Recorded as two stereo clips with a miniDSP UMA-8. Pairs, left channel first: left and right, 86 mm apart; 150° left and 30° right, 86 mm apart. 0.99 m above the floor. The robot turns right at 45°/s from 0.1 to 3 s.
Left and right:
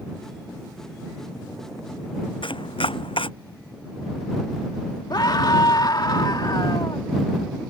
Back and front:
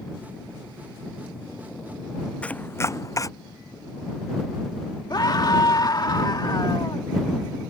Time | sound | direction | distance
2.4 | chopping | 75° left | ?
5.1 | a scream | 120° left | ?